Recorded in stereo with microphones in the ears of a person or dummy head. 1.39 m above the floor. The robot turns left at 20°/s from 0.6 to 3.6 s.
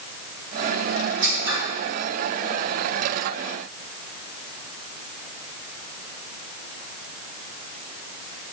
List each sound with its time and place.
1.2 s scissors: 75° right (ahead or behind), 3 m; by 1.6 s 70° right (ahead or behind), 3 m